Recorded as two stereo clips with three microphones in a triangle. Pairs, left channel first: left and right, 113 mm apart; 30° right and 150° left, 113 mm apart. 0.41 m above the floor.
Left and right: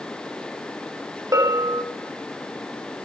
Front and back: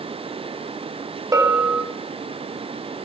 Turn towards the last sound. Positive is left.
turn(degrees=-150)